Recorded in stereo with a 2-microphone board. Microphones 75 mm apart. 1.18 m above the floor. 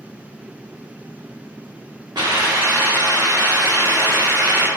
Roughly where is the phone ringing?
I don't hear a phone ringing.